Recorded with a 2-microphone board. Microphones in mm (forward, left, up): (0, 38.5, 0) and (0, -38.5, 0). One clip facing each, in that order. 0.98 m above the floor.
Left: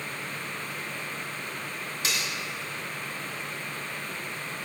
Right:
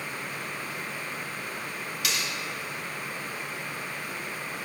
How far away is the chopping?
No chopping in this recording.